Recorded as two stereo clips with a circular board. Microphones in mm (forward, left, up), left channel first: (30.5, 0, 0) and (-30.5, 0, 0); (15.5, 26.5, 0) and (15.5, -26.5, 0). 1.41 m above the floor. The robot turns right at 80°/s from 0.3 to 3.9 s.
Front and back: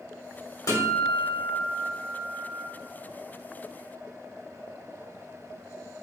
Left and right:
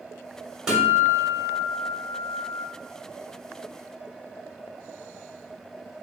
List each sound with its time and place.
0.7 s a guitar: 15° right, 1.9 m; by 2.6 s 145° left, 1.9 m